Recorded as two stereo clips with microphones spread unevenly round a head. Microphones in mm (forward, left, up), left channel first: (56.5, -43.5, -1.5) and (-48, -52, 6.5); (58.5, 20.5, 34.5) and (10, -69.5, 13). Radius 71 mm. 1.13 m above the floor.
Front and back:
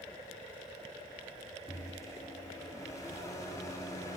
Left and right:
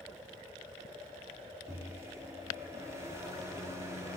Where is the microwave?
55° right, 2.5 m.